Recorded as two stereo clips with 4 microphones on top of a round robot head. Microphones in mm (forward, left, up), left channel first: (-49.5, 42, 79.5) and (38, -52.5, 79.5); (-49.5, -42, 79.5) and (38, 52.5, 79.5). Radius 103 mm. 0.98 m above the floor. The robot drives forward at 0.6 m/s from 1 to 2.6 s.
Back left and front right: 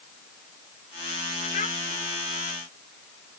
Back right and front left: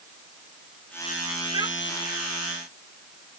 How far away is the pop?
No pop in this recording.